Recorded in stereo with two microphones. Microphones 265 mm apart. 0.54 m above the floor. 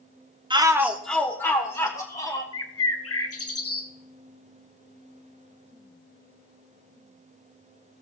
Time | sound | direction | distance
0.5 | a shout | 20° right (ahead or behind) | 0.7 m
2.5 | a bird | 60° left (ahead or behind) | 1.0 m